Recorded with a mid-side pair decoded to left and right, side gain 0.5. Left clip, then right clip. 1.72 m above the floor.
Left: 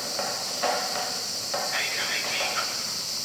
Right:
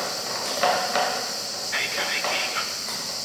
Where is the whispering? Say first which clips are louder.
Right 4 dB; 35° right, 6 m.